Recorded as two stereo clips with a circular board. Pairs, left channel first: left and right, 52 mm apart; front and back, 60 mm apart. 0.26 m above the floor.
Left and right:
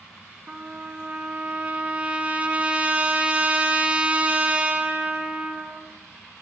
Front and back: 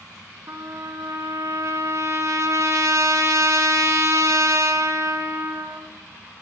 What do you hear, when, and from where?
0.5 s a trumpet: 150° right, 1.1 m